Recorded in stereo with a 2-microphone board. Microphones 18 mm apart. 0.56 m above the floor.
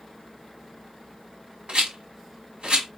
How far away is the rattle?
About 1.8 m.